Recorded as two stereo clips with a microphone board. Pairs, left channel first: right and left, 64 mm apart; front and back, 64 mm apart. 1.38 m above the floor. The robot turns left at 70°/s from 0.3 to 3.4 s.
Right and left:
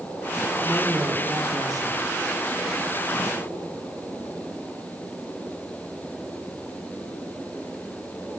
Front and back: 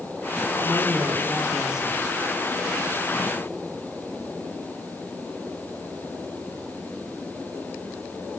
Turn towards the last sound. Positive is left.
turn(degrees=-10)